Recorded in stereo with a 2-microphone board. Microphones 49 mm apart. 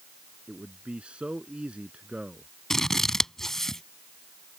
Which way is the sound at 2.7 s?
10° left (ahead or behind).